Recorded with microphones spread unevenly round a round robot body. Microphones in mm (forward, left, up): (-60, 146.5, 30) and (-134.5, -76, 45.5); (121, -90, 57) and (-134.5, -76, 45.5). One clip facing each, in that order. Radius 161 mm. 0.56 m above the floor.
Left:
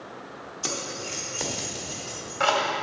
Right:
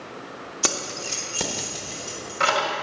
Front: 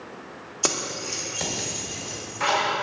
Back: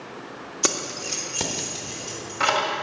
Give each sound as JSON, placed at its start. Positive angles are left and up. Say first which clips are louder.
{"t": 0.6, "sound": "keys jangling", "louder": "right 3 dB, back 1 dB", "azimuth_deg": -120, "distance_m": 1.0}